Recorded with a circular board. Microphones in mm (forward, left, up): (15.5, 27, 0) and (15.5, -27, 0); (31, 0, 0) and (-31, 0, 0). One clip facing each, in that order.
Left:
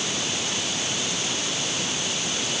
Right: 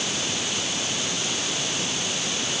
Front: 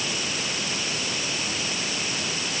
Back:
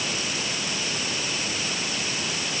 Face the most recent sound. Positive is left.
No sound to turn to.